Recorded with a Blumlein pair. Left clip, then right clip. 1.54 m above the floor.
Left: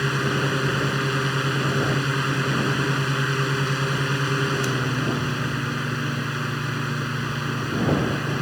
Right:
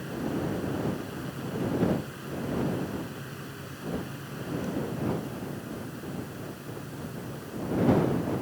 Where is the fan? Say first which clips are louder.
Left 10 dB; 40° left.